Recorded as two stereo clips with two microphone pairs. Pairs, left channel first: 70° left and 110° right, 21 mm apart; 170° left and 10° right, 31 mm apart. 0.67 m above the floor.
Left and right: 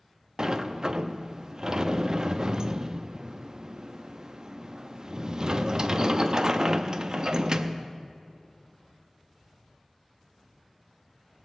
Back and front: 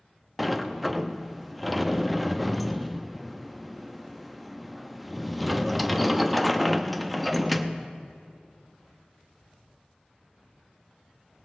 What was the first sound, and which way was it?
A sliding door, 105° right.